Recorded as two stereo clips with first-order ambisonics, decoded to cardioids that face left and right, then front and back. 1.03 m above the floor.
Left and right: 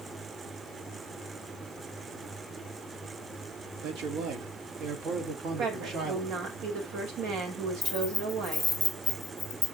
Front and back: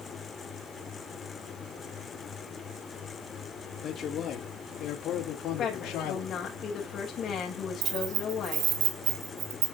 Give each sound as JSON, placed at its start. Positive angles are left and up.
{"t": 3.8, "sound": "a man speaking", "azimuth_deg": -60, "distance_m": 2.0}
{"t": 5.6, "sound": "a woman speaking", "azimuth_deg": -65, "distance_m": 4.0}
{"t": 7.8, "sound": "keys jangling", "azimuth_deg": 180, "distance_m": 2.0}